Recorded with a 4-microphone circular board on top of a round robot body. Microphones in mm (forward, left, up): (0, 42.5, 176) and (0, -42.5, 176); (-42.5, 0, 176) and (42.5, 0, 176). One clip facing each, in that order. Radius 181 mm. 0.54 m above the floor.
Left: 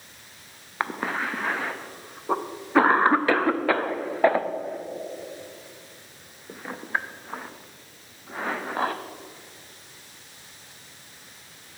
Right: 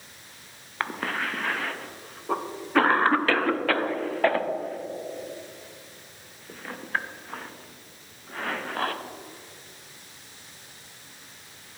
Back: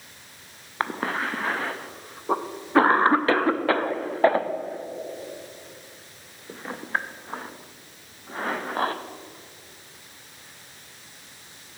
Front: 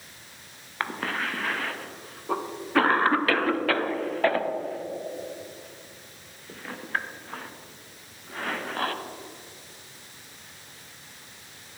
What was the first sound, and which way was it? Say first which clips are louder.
A cough: left 2 dB, back 3 dB; 150° left.